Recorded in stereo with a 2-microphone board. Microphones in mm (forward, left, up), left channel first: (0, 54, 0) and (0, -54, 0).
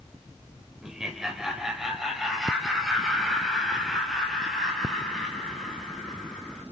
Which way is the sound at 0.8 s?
5° right (ahead or behind).